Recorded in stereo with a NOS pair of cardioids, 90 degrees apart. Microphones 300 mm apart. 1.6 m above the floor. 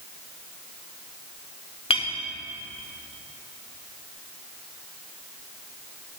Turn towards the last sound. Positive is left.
turn(degrees=20)